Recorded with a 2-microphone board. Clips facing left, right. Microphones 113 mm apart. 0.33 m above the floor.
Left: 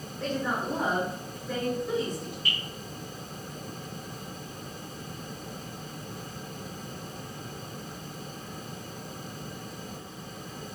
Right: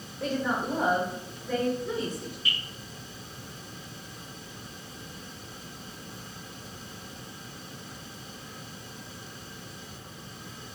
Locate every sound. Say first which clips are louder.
0.2 s a woman speaking: right 1 dB; 10° right (ahead or behind), 1.2 m; by 2.4 s centre (ahead or behind), 1.5 m
2.5 s dripping: even; 20° right (ahead or behind), 1.9 m